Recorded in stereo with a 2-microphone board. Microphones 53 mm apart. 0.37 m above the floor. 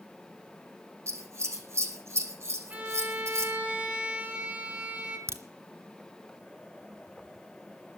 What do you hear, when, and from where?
1.1 s scissors: 55° right (ahead or behind), 3.5 m
2.7 s a violin: 25° right (ahead or behind), 4 m
5.3 s a crack: 60° right (ahead or behind), 2.5 m